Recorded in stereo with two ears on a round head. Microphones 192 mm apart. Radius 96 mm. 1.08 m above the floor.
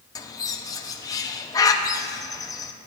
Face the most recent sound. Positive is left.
turn(degrees=15)  # may be behind; listen again after turning